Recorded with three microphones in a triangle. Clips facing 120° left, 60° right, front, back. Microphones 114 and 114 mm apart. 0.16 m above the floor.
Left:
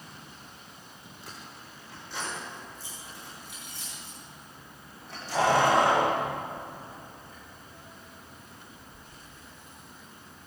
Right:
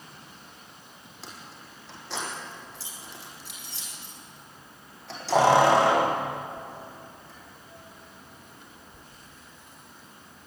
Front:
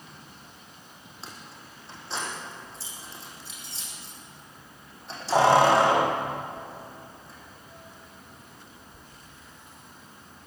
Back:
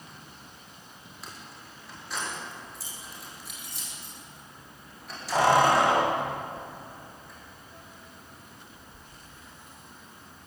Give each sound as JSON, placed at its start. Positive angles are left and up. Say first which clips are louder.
{"t": 1.2, "sound": "keys jangling", "louder": "right 2 dB, front 1 dB", "azimuth_deg": -60, "distance_m": 5.5}